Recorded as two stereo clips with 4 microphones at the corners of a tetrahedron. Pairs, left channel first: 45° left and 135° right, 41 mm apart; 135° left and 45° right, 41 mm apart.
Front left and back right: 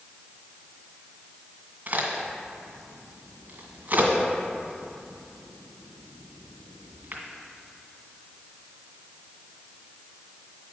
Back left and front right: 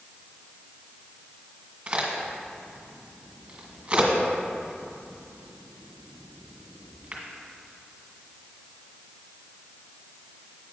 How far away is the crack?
About 1.8 m.